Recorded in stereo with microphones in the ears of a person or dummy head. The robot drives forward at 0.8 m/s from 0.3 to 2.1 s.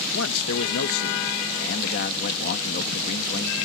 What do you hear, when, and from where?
0.1 s a man speaking: 70° left (ahead or behind); by 3.5 s 50° left (ahead or behind)